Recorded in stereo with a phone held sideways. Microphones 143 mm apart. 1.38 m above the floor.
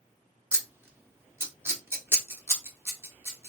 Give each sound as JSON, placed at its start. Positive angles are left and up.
{"t": 0.5, "sound": "scissors", "side_deg": -15, "distance_m": 0.9}